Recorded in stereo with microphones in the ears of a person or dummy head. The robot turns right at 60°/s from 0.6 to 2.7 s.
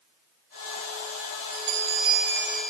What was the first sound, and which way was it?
A bell, 55° right.